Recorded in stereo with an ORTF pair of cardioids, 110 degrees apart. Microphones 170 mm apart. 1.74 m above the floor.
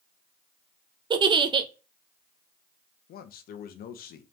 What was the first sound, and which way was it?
A giggle, 30° right.